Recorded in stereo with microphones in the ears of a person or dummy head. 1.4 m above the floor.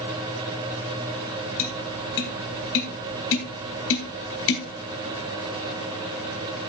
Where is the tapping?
70° left (ahead or behind), 2.5 m.